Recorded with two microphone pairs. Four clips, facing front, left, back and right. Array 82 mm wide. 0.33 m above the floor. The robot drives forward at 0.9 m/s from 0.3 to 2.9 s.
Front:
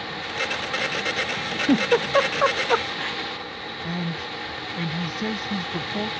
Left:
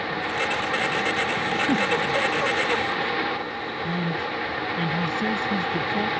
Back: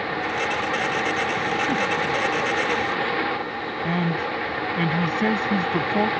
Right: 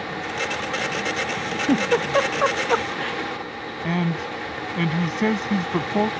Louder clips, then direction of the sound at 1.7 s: Right 6 dB, front 3 dB; 40° right.